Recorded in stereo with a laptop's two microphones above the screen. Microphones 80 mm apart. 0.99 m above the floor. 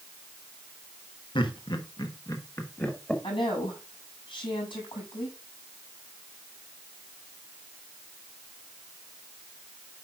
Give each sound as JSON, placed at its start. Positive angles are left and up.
{"t": 1.4, "sound": "laughter", "side_deg": 70, "distance_m": 1.5}
{"t": 3.2, "sound": "a woman speaking", "side_deg": 75, "distance_m": 6.5}